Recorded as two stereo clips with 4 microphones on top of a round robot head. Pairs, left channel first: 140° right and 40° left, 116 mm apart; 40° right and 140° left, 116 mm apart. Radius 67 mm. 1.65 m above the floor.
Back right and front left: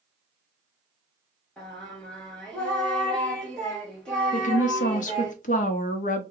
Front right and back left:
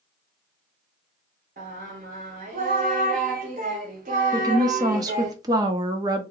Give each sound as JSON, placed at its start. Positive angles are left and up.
{"t": 1.6, "sound": "singing", "azimuth_deg": 135, "distance_m": 0.9}
{"t": 4.3, "sound": "a woman speaking", "azimuth_deg": -160, "distance_m": 0.7}